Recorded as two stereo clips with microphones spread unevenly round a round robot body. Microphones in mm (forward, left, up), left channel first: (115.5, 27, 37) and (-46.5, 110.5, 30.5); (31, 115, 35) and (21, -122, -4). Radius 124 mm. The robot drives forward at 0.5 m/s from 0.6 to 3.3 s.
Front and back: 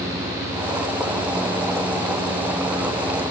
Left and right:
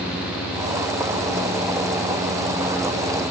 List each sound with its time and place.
Only background noise.